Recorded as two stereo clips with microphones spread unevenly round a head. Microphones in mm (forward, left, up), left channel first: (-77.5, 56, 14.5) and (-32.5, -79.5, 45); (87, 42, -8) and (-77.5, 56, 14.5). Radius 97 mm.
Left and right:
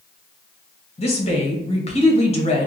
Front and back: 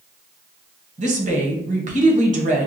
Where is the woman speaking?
130° left, 1.4 m.